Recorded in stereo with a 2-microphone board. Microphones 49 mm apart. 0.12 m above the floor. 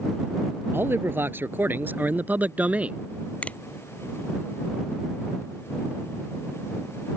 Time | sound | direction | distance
0.7 | a man speaking | 50° right (ahead or behind) | ?
3.4 | a finger snap | 25° left (ahead or behind) | ?